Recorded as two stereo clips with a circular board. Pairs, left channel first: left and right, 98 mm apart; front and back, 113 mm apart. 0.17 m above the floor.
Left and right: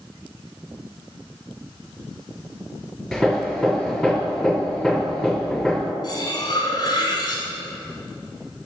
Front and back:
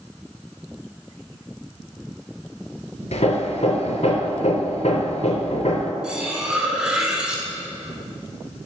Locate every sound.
3.1 s hammering: 5° left, 0.7 m
6.0 s cutlery clinking: 100° left, 0.9 m